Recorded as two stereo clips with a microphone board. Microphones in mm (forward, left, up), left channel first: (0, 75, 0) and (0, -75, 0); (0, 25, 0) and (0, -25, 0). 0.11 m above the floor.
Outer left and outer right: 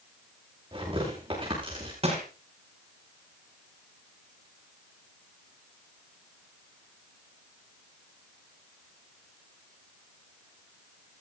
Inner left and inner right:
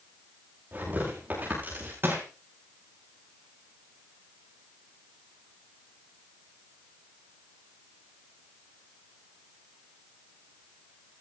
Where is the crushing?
40° right (ahead or behind), 8 m.